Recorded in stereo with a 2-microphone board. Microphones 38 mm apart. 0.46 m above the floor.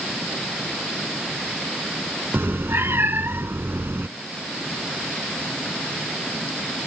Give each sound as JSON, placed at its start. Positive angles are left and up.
{"t": 2.3, "sound": "a cat meowing", "side_deg": -80}